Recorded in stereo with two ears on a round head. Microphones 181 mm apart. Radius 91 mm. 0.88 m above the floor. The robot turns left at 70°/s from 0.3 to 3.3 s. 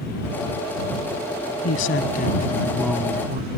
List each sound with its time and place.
1.6 s a man speaking: 80° left; by 3.5 s 35° right